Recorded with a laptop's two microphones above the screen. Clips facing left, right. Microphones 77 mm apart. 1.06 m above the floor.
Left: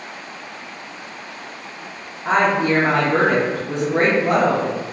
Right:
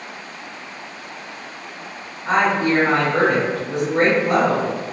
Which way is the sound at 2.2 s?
65° left (ahead or behind).